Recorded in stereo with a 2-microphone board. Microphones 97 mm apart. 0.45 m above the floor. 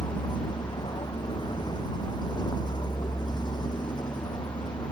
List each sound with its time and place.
0.0 s a vehicle: 50° left (ahead or behind)